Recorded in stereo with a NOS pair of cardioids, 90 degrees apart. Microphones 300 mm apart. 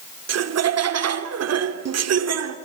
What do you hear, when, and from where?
0.3 s laughter: 55° right, 2.5 m